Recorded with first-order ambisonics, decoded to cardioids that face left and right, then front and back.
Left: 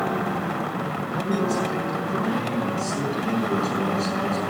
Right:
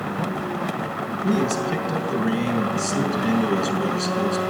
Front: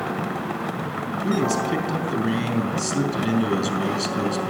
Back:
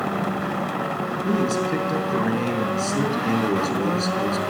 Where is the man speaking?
25° right, 4 m.